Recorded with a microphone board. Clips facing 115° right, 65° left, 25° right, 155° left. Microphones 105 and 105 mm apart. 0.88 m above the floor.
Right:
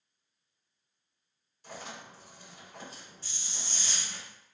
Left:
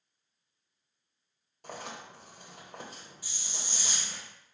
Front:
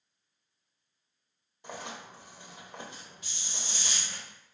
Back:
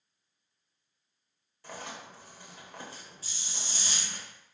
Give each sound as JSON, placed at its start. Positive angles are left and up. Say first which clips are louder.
{"t": 1.6, "sound": "writing", "louder": "left 2 dB, front 1 dB", "azimuth_deg": 45, "distance_m": 0.9}
{"t": 3.2, "sound": "a hiss", "louder": "left 2 dB, front 1 dB", "azimuth_deg": 140, "distance_m": 0.8}